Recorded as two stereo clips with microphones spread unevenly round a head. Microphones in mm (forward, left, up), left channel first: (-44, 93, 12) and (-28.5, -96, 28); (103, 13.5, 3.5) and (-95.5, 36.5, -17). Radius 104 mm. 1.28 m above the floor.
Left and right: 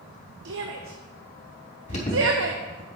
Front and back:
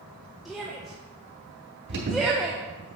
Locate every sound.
0.5 s a shout: 100° right, 1.0 m
1.9 s an alarm: 145° left, 4 m